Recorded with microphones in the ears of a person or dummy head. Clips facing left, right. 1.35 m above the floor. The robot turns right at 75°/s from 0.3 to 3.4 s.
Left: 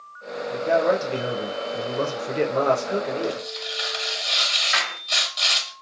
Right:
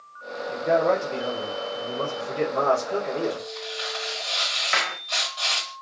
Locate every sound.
0.5 s a man speaking: 20° right, 0.7 m; by 3.5 s 165° right, 0.7 m
3.2 s tearing paper: 20° left (ahead or behind), 1.2 m; by 5.7 s 30° left (ahead or behind), 1.2 m
4.7 s a clap: 55° right (ahead or behind), 1.2 m